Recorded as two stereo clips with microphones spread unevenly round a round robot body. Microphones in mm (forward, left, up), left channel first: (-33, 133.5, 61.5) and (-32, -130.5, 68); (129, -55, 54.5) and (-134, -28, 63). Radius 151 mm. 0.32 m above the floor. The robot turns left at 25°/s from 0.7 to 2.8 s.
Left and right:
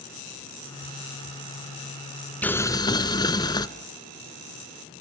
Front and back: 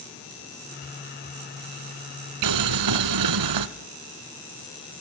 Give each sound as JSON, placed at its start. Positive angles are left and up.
{"t": 2.4, "sound": "boiling", "azimuth_deg": 175, "distance_m": 0.8}